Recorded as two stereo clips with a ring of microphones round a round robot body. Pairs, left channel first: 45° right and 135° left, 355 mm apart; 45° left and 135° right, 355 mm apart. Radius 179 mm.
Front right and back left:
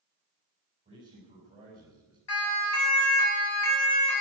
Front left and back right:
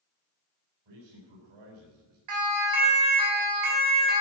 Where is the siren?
95° right, 6 m; by 4.2 s 100° right, 7 m.